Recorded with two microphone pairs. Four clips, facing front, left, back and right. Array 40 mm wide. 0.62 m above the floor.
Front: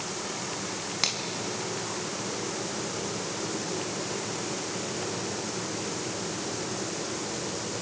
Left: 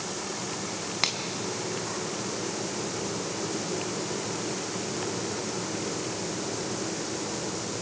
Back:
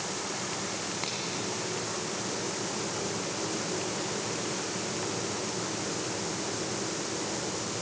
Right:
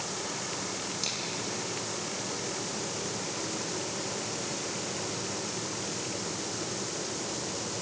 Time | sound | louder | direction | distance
1.0 | a finger snap | left 11 dB, front 4 dB | 65° left | 4 m